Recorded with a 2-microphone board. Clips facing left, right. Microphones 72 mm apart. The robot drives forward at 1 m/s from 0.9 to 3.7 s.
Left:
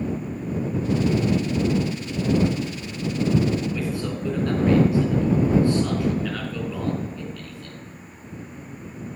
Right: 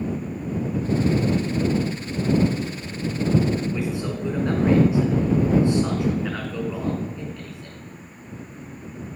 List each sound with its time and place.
3.7 s a man speaking: 20° right (ahead or behind), 3 m